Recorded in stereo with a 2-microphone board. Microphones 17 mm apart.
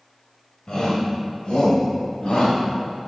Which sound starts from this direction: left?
A shout, at 0.7 s.